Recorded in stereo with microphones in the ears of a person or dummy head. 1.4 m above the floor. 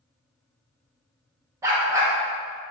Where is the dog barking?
15° right (ahead or behind), 0.8 m.